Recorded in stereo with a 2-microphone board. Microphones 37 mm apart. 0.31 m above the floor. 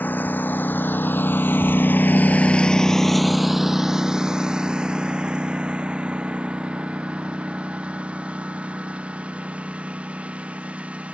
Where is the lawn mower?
65° left (ahead or behind); by 11.2 s 40° right (ahead or behind).